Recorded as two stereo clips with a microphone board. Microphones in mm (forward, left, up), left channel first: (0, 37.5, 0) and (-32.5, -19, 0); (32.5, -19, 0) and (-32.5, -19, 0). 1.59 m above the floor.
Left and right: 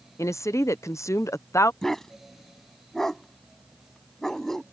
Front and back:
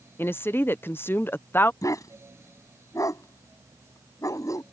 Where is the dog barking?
20° right.